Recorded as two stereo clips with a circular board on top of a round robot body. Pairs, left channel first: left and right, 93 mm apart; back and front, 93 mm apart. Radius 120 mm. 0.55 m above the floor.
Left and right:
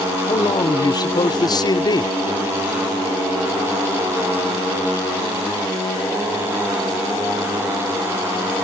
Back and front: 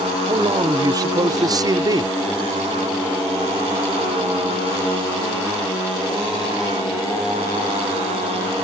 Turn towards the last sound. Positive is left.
turn(degrees=45)